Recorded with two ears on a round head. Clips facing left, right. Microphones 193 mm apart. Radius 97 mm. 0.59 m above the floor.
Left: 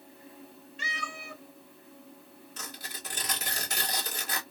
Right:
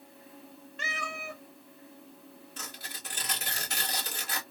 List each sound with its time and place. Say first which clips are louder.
0.8 s a cat meowing: right 3 dB; 45° right (ahead or behind), 0.8 m
2.6 s tearing paper: left 3 dB; 35° left (ahead or behind), 1.4 m